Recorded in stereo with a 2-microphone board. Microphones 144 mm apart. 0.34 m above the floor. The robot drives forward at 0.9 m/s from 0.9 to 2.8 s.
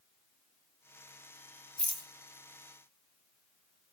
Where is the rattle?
45° left (ahead or behind), 0.8 m; by 2.1 s 35° left (ahead or behind), 1.0 m.